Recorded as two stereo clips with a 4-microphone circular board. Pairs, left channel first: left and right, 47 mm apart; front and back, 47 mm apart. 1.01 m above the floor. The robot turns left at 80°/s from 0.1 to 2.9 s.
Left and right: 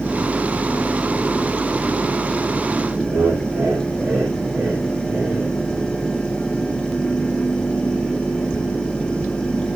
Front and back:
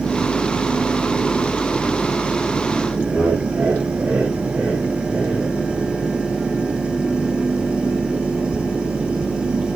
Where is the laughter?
105° right, 5 m.